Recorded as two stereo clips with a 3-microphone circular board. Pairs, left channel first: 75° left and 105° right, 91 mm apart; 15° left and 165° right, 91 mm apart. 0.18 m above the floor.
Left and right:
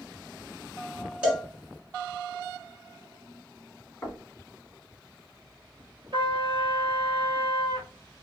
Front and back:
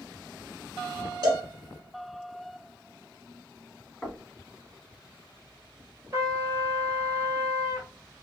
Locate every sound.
1.2 s a cowbell: straight behind, 1.6 m
4.0 s knocking: 85° left, 0.7 m
6.1 s a trumpet: 125° right, 1.0 m